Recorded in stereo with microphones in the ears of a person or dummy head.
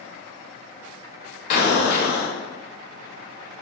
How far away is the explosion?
About 0.7 m.